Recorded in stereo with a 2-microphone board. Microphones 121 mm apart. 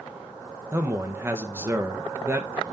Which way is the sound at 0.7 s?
20° right (ahead or behind).